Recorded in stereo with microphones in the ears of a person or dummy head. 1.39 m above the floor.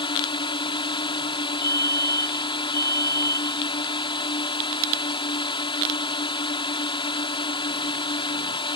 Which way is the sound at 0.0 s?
30° left (ahead or behind).